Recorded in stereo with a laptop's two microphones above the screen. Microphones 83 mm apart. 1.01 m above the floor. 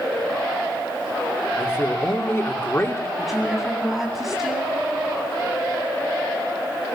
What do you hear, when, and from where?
1.6 s a man speaking: 30° left (ahead or behind), 2.5 m
3.2 s a woman speaking: 5° right (ahead or behind), 9.5 m